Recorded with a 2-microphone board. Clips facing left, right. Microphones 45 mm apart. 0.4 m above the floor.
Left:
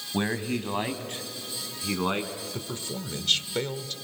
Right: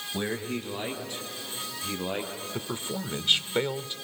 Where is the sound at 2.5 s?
20° right (ahead or behind), 1.1 m.